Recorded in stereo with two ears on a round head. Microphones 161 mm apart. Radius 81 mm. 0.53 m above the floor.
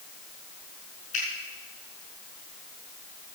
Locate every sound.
1.1 s a finger snap: 40° left (ahead or behind), 6.5 m